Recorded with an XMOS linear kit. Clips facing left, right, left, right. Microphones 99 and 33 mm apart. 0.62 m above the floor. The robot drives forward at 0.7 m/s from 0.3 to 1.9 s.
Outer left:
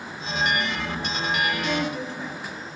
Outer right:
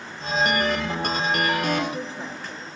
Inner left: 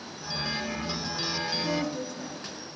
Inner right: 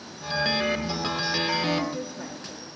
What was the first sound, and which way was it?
A woman speaking, 30° right (ahead or behind).